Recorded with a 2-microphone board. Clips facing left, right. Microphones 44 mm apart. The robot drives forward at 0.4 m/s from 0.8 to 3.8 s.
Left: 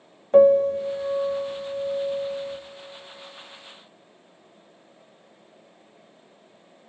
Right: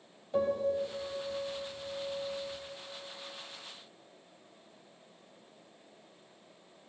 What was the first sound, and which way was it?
A piano, 60° left (ahead or behind).